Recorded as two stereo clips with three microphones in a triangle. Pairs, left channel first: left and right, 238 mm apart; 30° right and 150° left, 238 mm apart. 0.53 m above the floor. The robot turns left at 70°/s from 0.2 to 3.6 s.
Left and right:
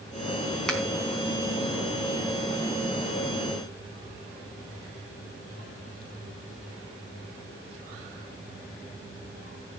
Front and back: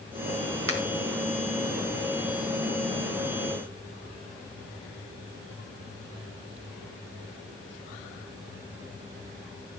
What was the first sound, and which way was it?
A finger snap, straight behind.